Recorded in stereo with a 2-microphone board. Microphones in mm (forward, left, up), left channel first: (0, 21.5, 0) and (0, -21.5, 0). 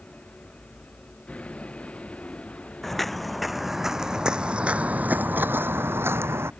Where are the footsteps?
5° left (ahead or behind); by 6.5 s 70° right (ahead or behind).